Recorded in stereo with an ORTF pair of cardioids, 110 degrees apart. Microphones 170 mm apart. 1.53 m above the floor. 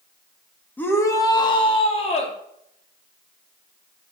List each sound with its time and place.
0.8 s a shout: 10° left, 2.5 m; by 2.4 s 40° left, 3.5 m